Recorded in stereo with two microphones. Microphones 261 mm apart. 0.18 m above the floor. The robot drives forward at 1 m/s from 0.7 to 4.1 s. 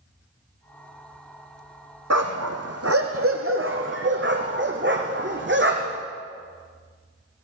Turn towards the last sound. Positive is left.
turn(degrees=-45)  # may be behind; listen again after turning